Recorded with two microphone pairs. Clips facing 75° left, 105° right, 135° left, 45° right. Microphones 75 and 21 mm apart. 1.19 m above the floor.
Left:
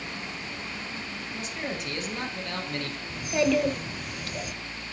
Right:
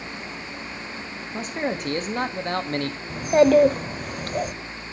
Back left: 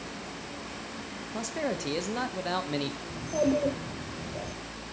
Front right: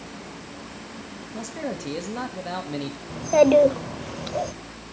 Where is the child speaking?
60° right, 0.6 m.